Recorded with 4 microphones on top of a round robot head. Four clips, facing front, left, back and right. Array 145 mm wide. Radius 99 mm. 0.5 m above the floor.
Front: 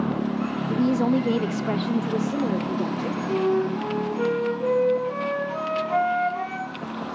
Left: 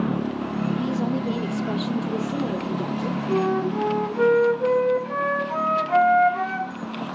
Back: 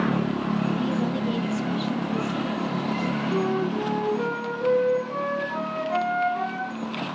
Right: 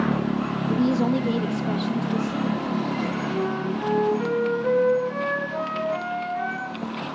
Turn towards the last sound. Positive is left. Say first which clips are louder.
# left 4 dB, front 4 dB
turn(degrees=80)